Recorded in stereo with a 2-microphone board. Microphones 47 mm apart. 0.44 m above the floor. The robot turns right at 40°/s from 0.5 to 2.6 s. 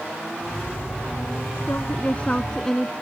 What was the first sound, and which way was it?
A woman speaking, 130° left.